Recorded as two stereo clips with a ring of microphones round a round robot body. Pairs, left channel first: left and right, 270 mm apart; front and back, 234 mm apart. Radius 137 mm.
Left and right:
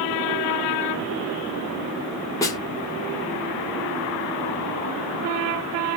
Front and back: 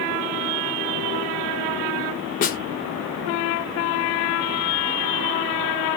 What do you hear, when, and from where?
2.4 s a snare drum: 20° left, 0.6 m